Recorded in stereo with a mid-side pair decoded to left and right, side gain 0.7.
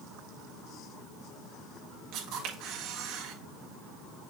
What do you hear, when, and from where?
2.1 s a camera shutter: 55° right, 4 m